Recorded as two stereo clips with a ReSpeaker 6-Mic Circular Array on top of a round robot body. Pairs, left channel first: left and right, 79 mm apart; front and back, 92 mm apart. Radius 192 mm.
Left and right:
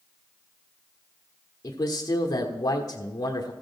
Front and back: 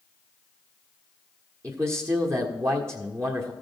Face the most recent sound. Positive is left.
turn(degrees=125)